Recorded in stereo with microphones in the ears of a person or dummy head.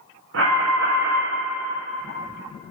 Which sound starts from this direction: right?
An alarm, at 0.3 s.